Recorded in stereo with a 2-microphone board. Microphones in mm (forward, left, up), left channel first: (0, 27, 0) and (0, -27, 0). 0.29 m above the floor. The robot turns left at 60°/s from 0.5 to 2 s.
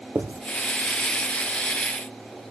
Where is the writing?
55° right (ahead or behind), 3 m.